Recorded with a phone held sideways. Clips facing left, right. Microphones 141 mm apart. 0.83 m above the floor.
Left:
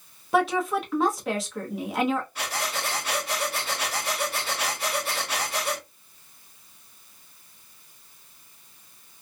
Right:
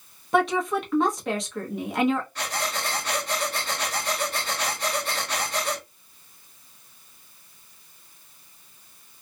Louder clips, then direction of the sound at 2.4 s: Right 1 dB; 10° left (ahead or behind).